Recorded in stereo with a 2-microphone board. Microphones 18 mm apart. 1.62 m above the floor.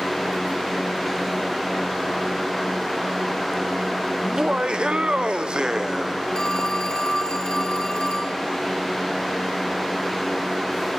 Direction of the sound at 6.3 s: 50° left (ahead or behind).